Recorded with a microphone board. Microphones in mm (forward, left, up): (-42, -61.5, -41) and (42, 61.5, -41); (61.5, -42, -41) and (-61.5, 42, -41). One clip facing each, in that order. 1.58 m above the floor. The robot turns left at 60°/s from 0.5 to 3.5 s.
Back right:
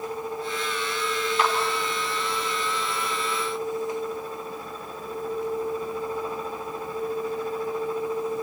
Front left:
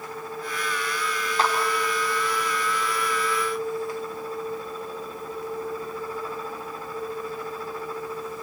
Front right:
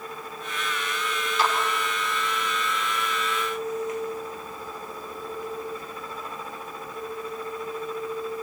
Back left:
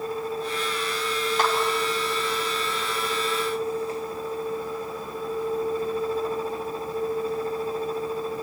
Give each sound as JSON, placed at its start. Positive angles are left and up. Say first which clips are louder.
{"t": 1.4, "sound": "a clap", "louder": "front left 1 dB, even", "azimuth_deg": 110, "distance_m": 3.0}